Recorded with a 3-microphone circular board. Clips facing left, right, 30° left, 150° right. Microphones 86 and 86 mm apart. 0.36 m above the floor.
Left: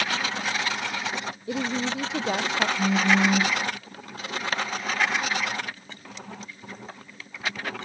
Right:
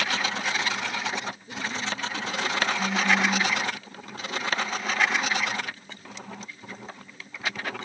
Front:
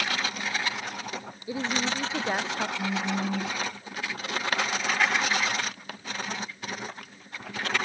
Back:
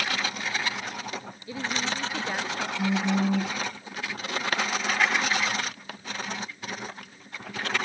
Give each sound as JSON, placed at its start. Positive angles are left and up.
{"t": 1.5, "sound": "a woman speaking", "azimuth_deg": 100}
{"t": 2.8, "sound": "a phone buzzing", "azimuth_deg": 140}